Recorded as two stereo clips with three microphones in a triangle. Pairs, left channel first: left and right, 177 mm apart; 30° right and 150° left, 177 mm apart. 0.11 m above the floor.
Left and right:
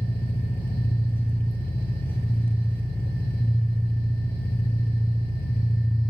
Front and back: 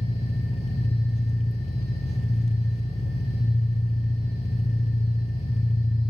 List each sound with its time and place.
0.0 s an engine running: 15° left, 0.9 m